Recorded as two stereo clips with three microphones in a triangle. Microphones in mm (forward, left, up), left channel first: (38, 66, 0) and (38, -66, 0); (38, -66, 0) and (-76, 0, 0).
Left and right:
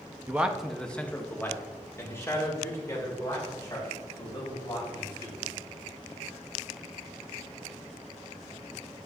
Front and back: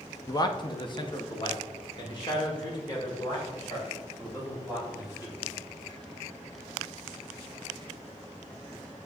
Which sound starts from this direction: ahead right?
A man speaking, at 0.3 s.